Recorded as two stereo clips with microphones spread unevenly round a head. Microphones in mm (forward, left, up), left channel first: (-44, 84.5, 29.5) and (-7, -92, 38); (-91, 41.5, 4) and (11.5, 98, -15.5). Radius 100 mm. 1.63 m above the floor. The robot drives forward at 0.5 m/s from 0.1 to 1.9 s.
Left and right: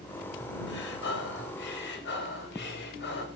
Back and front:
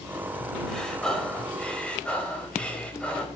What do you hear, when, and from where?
0.7 s breathing: 125° left, 5 m; by 3.3 s 130° left, 5.5 m